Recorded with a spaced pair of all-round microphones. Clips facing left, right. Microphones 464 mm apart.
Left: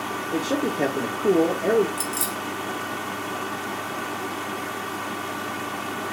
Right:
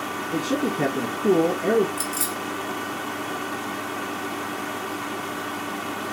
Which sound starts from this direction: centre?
A man speaking, at 0.3 s.